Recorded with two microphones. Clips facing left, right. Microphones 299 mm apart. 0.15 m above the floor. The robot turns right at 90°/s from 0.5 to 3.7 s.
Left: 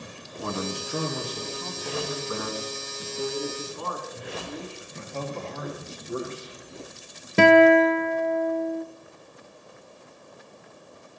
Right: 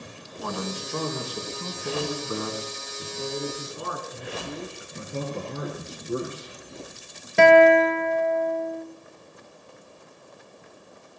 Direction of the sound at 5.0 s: 45° right (ahead or behind).